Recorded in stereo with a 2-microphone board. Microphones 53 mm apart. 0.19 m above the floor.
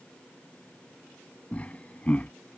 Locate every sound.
1.5 s laughter: 25° left (ahead or behind)